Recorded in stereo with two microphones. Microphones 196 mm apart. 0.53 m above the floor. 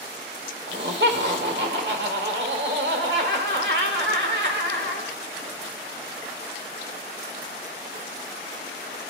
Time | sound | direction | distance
0.7 | laughter | 60° right (ahead or behind) | 1.5 m